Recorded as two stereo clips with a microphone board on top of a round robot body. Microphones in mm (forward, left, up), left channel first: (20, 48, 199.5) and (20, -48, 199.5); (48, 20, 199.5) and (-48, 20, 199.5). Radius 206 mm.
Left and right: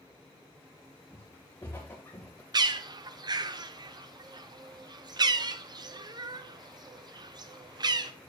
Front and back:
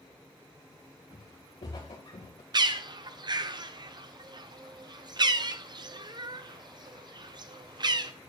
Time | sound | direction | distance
1.1 | footsteps | 25° left | 4 m
2.5 | a bird | 135° right | 0.6 m